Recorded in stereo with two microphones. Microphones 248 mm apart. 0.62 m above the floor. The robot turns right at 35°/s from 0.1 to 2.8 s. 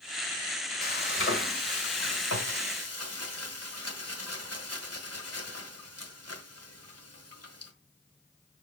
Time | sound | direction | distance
0.8 | frying | 35° left | 1.6 m